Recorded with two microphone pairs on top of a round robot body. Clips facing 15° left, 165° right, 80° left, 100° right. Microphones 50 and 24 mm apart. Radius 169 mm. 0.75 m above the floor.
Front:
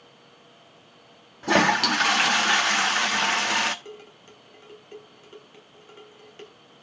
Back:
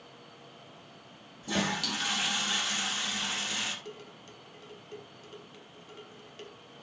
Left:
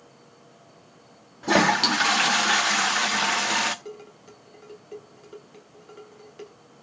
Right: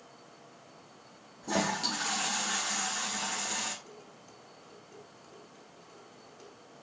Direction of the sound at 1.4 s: 45° left.